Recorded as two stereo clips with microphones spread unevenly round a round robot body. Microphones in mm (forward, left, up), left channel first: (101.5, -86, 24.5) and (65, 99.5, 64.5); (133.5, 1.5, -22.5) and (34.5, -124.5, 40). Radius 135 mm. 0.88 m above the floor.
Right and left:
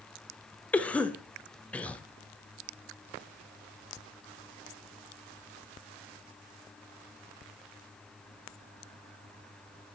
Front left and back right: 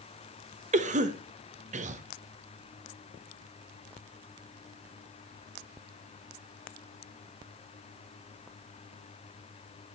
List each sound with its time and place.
0.7 s a cough: 110° right, 0.9 m